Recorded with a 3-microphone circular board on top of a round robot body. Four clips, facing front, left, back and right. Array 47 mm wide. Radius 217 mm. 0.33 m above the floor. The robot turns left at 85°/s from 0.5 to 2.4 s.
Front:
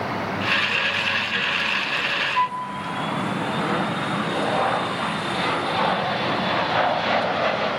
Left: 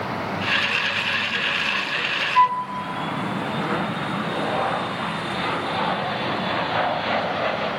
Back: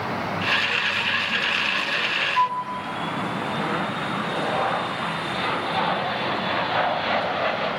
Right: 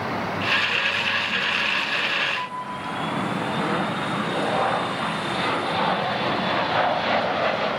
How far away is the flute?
About 0.5 m.